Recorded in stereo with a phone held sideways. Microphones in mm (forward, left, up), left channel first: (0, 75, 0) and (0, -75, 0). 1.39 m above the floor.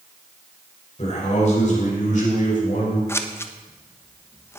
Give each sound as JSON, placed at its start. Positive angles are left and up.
{"t": 1.0, "sound": "a man speaking", "side_deg": 45, "distance_m": 6.0}
{"t": 3.1, "sound": "scissors", "side_deg": 15, "distance_m": 0.9}